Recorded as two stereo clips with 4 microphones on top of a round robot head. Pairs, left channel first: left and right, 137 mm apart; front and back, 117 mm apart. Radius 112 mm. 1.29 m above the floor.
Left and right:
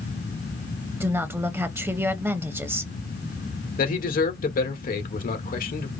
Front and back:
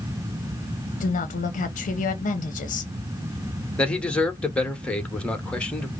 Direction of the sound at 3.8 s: 85° left.